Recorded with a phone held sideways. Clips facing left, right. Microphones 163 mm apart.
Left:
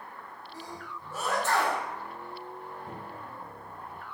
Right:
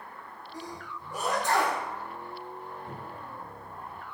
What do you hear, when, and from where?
0.5 s a sneeze: 15° right (ahead or behind), 0.7 m
2.9 s a cupboard door: 55° left (ahead or behind), 1.7 m